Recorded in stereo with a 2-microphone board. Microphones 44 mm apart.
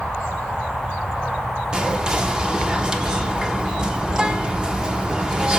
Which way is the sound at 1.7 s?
20° right (ahead or behind).